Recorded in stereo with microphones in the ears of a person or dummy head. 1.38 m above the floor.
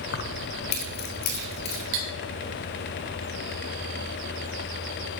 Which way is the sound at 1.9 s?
55° right (ahead or behind).